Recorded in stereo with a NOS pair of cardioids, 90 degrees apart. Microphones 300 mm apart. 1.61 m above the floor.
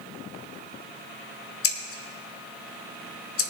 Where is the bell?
No bell in this recording.